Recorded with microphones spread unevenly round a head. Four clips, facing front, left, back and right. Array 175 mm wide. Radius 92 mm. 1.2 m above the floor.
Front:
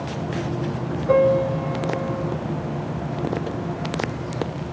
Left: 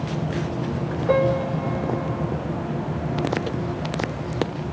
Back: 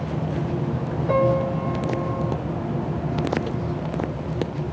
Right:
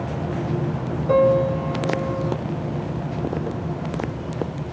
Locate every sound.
1.1 s a piano: 70° left, 3 m